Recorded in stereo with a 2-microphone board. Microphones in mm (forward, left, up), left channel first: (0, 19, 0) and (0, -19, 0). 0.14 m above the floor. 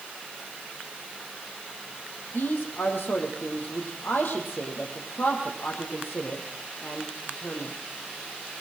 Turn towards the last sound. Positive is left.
turn(degrees=60)  # may be behind; listen again after turning